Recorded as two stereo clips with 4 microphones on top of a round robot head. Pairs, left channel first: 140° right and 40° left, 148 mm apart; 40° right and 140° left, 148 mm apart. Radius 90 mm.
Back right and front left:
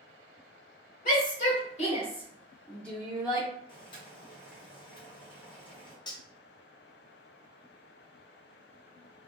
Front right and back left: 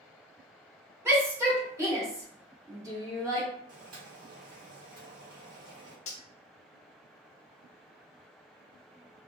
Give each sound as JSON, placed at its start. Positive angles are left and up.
{"t": 1.1, "sound": "a shout", "azimuth_deg": -145, "distance_m": 1.9}
{"t": 3.7, "sound": "boiling", "azimuth_deg": 165, "distance_m": 1.7}
{"t": 6.1, "sound": "cutlery clinking", "azimuth_deg": -80, "distance_m": 0.7}